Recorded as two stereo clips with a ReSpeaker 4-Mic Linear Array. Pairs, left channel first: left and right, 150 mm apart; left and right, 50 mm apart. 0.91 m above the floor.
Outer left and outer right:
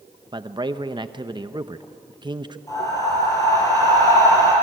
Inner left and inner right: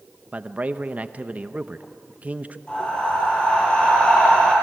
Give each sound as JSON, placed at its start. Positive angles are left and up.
{"t": 0.3, "sound": "a man speaking", "side_deg": -30, "distance_m": 0.8}
{"t": 2.7, "sound": "breathing", "side_deg": 20, "distance_m": 8.5}